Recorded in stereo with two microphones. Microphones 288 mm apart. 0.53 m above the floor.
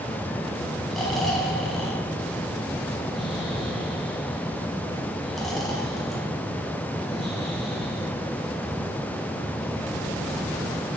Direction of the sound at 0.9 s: Centre (ahead or behind).